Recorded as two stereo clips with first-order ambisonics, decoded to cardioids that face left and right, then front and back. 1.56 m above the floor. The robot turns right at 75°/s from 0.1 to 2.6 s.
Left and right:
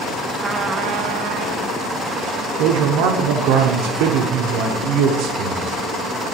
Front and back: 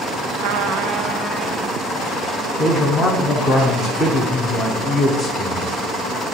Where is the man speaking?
75° right, 1.0 m; by 5.7 s 70° right, 1.0 m.